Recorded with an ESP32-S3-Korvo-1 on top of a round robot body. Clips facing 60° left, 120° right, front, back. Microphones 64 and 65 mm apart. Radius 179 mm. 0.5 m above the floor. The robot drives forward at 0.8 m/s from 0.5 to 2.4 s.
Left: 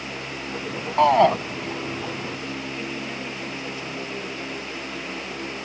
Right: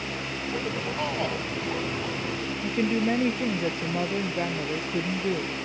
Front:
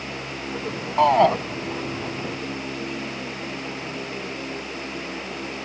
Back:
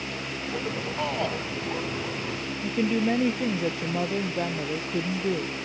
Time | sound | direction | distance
1.0 | a shout | 30° left | ?
2.6 | a woman speaking | 165° right | ?